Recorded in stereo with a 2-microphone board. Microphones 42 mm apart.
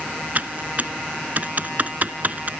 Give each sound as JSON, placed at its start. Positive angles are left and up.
{"t": 0.3, "sound": "typing on a keyboard", "side_deg": -45, "distance_m": 0.6}